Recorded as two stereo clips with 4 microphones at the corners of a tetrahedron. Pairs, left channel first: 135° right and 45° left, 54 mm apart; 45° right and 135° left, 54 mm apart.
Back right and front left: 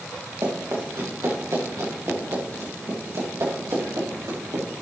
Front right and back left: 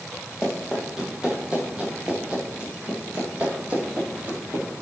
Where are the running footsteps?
55° left, 7 m; by 4.6 s 75° left, 10 m.